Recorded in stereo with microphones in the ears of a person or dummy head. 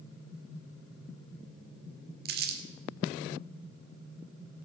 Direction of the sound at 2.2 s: 50° right (ahead or behind).